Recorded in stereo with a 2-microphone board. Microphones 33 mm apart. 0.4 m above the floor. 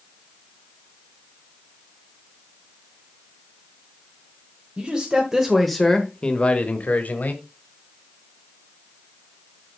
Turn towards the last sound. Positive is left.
turn(degrees=65)  # may be behind; listen again after turning